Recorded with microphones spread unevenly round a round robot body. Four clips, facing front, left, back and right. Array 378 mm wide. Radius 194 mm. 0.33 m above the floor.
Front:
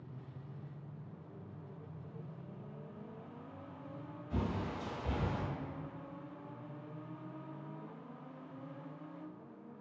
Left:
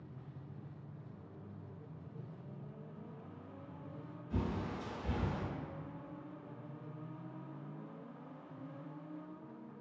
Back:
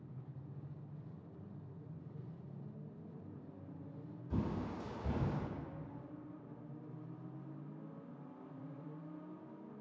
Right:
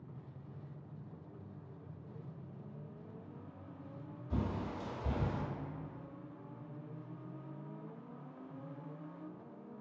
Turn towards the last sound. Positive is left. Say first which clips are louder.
# even, front 2 dB
turn(degrees=-120)